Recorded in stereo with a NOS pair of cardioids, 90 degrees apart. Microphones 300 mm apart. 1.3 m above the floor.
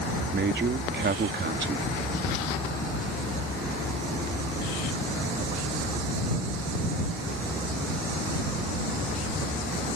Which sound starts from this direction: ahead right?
A man speaking, at 0.3 s.